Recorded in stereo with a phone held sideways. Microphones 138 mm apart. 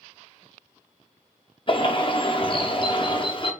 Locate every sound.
1.7 s a bird: 40° left (ahead or behind), 0.5 m